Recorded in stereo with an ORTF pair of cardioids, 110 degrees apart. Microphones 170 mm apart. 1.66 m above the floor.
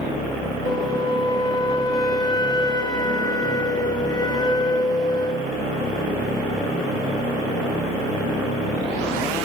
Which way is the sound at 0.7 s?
25° left.